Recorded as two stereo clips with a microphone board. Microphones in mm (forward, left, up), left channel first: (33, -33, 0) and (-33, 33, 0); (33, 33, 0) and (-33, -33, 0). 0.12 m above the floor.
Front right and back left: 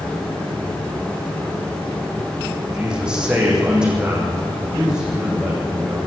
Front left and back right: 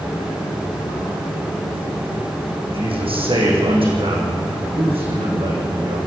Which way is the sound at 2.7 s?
145° right.